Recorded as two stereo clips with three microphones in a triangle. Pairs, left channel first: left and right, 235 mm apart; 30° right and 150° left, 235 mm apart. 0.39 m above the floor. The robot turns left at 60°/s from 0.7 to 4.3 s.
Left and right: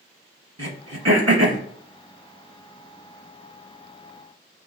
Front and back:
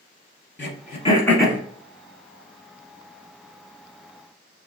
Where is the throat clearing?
75° right, 1.1 m; by 1.6 s 130° right, 1.1 m.